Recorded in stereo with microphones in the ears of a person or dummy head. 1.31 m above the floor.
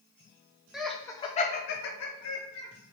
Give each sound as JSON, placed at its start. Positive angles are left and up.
{"t": 0.7, "sound": "laughter", "side_deg": 0, "distance_m": 0.9}